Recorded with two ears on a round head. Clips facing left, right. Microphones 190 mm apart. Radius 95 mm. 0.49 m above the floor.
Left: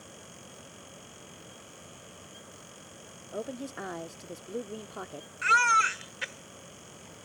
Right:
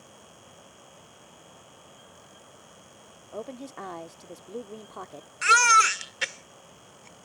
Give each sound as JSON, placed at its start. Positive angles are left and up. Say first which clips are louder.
{"t": 3.3, "sound": "a woman speaking", "louder": "left 1 dB", "side_deg": 10}
{"t": 5.4, "sound": "a baby crying", "louder": "right 5 dB", "side_deg": -55}